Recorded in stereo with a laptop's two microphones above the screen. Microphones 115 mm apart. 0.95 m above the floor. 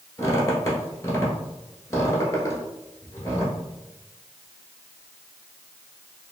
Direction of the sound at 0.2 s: 30° left (ahead or behind).